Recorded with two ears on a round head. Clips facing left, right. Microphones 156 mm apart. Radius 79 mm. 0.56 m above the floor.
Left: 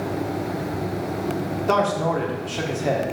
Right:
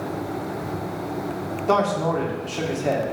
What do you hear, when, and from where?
1.7 s a man speaking: 5° left (ahead or behind), 1.3 m